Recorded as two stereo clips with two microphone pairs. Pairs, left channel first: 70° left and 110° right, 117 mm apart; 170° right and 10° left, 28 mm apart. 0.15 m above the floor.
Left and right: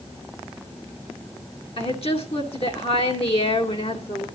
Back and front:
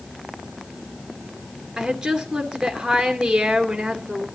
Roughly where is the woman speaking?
Left.